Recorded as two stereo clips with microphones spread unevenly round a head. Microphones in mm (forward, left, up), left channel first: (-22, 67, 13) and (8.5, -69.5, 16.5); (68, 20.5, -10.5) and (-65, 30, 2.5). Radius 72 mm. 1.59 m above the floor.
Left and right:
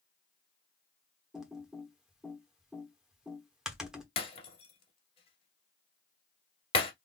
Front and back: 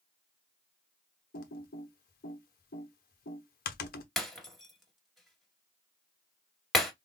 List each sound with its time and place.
1.3 s typing on a keyboard: 10° left, 0.9 m
4.2 s breaking glass: 90° left, 1.8 m